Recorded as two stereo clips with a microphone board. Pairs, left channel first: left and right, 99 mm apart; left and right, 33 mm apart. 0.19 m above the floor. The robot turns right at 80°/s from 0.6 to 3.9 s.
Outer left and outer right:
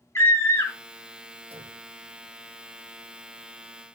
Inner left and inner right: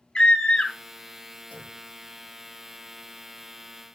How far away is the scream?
About 1.1 m.